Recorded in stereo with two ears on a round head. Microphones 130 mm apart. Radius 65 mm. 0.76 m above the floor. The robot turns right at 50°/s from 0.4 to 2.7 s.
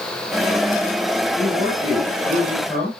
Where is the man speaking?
65° right, 6 m; by 2.9 s straight ahead, 6 m.